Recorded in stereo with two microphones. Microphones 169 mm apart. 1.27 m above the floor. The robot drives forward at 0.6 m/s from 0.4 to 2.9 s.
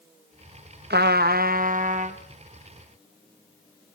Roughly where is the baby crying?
I don't hear a baby crying.